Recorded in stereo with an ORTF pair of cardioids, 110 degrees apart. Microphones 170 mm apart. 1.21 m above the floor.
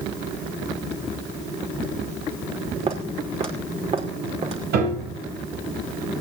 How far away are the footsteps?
About 5.5 m.